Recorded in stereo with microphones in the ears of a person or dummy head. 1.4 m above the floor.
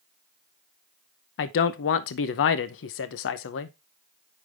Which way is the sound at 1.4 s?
65° left (ahead or behind).